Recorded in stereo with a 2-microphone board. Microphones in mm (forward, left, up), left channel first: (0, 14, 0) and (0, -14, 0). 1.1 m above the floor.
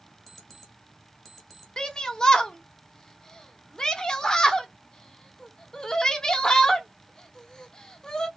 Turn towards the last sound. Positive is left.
turn(degrees=25)  # may be behind; listen again after turning